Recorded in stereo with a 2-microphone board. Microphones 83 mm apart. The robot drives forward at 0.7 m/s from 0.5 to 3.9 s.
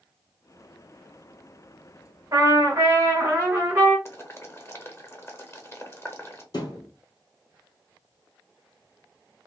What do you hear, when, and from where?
2.3 s a trumpet: 40° right (ahead or behind), 1.4 m; by 4.0 s 20° right (ahead or behind), 2.5 m
4.0 s boiling: 30° left (ahead or behind), 0.8 m
6.5 s a thud: 50° left (ahead or behind), 1.9 m